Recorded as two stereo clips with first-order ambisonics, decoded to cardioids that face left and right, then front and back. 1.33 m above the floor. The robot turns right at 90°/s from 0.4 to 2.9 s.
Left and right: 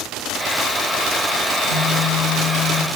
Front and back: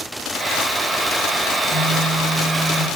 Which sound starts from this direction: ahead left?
A phone buzzing, at 1.6 s.